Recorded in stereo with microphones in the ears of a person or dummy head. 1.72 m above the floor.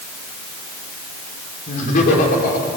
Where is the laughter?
45° left (ahead or behind), 5.5 m; by 2.7 s 55° left (ahead or behind), 5 m.